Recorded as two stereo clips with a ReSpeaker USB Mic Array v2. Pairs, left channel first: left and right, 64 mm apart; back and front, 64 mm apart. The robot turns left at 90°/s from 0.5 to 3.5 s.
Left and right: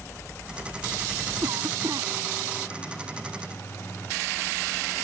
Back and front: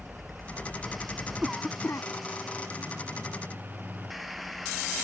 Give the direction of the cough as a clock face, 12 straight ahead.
3 o'clock.